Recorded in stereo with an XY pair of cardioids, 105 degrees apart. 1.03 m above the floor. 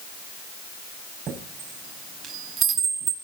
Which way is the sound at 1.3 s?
60° right.